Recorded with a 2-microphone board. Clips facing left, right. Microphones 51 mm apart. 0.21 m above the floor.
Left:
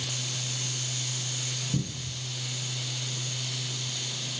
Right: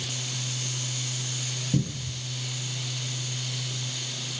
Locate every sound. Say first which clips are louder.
1.7 s a cupboard door: right 6 dB; 45° right (ahead or behind), 1.3 m